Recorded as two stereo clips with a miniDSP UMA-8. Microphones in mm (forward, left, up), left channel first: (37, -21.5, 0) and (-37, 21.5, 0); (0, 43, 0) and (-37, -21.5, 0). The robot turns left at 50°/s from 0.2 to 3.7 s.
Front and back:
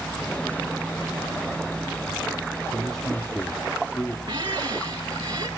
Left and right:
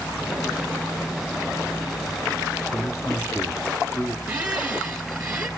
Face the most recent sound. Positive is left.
turn(degrees=165)